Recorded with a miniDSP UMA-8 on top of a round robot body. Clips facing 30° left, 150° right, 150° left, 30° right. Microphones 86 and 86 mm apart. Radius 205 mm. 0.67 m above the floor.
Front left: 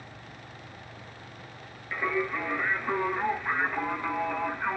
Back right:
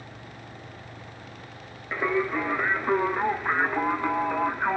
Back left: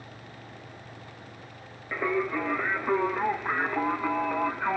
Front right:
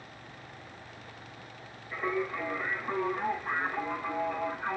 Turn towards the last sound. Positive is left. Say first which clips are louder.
# back right 4 dB, back left 4 dB
turn(degrees=155)